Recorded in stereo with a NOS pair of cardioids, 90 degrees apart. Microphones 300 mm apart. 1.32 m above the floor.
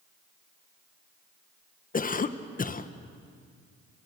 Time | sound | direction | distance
1.9 | a cough | 30° left | 1.2 m